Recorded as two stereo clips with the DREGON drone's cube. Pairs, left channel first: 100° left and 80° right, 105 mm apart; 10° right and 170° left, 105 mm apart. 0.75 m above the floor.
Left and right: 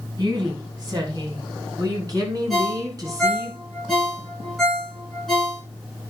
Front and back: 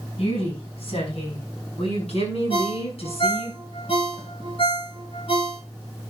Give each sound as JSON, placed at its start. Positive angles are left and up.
{"t": 0.2, "sound": "a woman speaking", "azimuth_deg": -30, "distance_m": 5.5}
{"t": 2.5, "sound": "a ringtone", "azimuth_deg": 15, "distance_m": 6.5}